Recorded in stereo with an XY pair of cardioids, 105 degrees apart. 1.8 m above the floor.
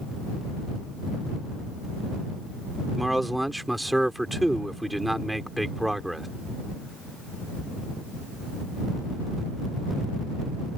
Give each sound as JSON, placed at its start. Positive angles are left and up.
{"t": 3.0, "sound": "a man speaking", "azimuth_deg": -5}